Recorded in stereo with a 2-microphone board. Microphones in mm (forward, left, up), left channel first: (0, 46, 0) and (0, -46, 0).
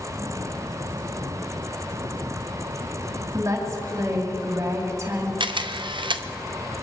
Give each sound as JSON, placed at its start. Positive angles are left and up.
{"t": 3.3, "sound": "a woman speaking", "side_deg": -35, "distance_m": 2.5}
{"t": 5.4, "sound": "a camera shutter", "side_deg": -70, "distance_m": 0.7}